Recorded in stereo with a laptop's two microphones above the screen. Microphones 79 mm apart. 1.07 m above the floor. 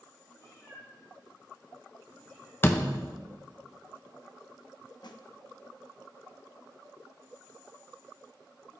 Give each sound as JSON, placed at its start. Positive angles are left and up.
{"t": 0.3, "sound": "a cat meowing", "side_deg": 40, "distance_m": 3.5}
{"t": 2.6, "sound": "a door slam", "side_deg": 30, "distance_m": 0.5}
{"t": 5.0, "sound": "a snare drum", "side_deg": 65, "distance_m": 0.6}